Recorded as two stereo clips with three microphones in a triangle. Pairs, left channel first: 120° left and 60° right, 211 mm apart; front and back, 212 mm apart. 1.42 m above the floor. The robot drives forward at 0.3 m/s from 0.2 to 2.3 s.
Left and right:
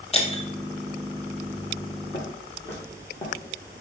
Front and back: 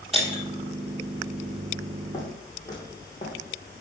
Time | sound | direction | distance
0.1 | breaking glass | 145° left | 1.7 m
2.1 | footsteps | 75° left | 3 m